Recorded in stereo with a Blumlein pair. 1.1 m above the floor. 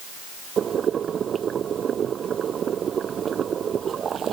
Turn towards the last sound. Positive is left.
turn(degrees=-20)